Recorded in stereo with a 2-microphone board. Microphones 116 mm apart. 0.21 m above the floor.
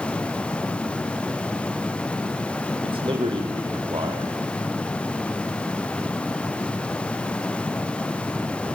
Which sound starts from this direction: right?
A man speaking, at 2.8 s.